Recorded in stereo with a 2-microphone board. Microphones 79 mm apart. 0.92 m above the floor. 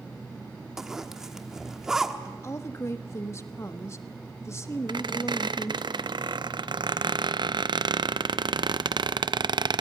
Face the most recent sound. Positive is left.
turn(degrees=-60)  # may be behind; listen again after turning